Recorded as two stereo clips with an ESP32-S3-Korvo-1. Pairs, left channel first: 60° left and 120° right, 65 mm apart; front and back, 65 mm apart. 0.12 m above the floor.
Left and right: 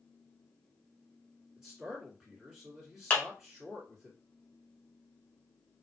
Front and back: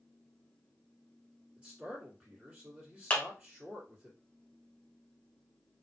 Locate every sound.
1.6 s a man speaking: 165° left, 1.7 m
3.1 s a clap: 30° left, 0.9 m